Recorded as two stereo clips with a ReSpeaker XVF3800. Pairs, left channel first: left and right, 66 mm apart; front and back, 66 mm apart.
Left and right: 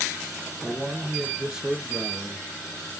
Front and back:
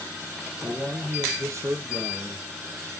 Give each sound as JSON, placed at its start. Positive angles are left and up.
{"t": 0.6, "sound": "a man speaking", "azimuth_deg": -160, "distance_m": 2.0}